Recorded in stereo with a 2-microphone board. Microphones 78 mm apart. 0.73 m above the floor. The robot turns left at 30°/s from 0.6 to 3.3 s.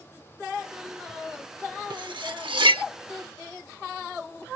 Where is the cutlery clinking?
65° right (ahead or behind); by 2.8 s 85° right.